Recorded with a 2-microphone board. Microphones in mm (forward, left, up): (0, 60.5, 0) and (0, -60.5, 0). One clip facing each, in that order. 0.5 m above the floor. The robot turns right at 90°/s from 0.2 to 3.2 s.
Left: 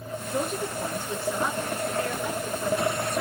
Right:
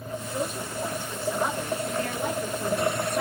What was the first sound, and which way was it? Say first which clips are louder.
A woman speaking: left 4 dB; 75° left.